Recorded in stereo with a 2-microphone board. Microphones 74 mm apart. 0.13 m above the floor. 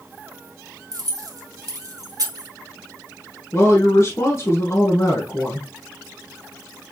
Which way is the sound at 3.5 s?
40° left (ahead or behind).